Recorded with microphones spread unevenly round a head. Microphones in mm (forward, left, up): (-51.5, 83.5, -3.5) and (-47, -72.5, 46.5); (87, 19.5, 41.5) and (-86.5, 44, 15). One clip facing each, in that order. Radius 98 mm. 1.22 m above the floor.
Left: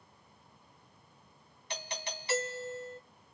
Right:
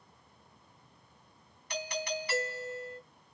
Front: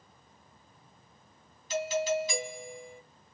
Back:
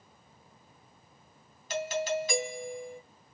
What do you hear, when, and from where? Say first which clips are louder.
1.7 s a doorbell: right 6 dB, front 2 dB; 145° left, 2.5 m